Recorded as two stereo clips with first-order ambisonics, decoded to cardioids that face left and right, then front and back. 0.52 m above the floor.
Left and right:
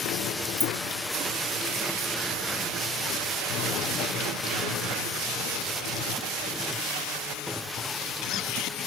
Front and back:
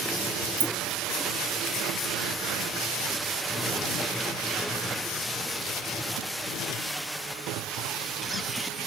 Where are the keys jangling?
Straight behind, 1.2 m.